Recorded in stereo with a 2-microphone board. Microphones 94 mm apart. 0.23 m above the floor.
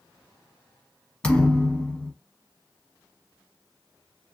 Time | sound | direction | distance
1.2 | a thud | 10° left (ahead or behind) | 0.6 m